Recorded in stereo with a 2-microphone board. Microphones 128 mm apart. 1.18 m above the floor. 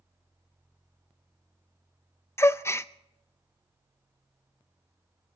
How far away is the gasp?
About 0.5 m.